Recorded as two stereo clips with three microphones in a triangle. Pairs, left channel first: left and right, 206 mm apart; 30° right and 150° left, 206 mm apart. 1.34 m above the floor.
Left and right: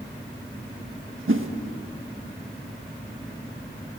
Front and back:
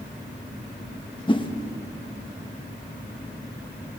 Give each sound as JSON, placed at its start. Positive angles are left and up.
{"t": 1.3, "sound": "a whoosh", "azimuth_deg": -95, "distance_m": 1.5}